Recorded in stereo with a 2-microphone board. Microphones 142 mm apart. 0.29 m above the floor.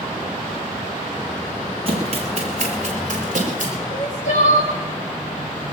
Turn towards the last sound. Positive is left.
turn(degrees=55)  # may be behind; listen again after turning